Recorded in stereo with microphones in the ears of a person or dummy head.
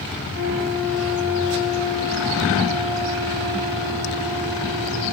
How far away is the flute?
About 7.5 m.